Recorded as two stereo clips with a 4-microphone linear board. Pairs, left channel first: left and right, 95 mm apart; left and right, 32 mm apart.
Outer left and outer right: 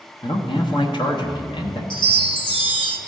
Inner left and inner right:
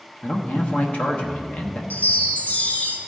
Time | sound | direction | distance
0.2 | a man speaking | 50° left (ahead or behind) | 1.0 m
1.9 | a chime | 60° left (ahead or behind) | 1.2 m